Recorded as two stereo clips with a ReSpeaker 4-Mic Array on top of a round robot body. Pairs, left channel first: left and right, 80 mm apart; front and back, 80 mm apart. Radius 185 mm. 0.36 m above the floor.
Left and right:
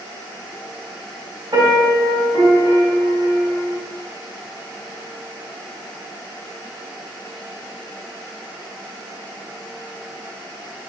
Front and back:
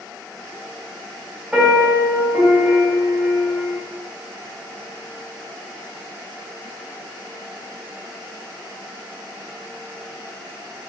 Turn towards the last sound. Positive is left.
turn(degrees=-100)